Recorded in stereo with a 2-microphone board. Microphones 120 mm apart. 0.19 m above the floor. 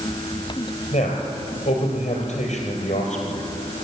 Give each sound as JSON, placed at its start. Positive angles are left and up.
{"t": 0.9, "sound": "a man speaking", "side_deg": 65, "distance_m": 4.5}